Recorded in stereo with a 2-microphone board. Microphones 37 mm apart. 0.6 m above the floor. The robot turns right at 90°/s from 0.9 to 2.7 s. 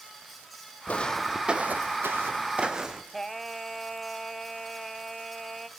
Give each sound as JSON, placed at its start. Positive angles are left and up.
{"t": 0.9, "sound": "footsteps", "side_deg": 40, "distance_m": 1.5}
{"t": 3.1, "sound": "singing", "side_deg": 5, "distance_m": 0.8}